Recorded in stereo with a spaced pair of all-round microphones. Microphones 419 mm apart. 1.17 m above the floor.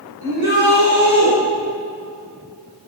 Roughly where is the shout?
Right.